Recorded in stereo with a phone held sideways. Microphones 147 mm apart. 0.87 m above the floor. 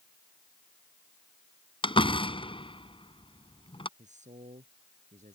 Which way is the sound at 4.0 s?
55° right (ahead or behind).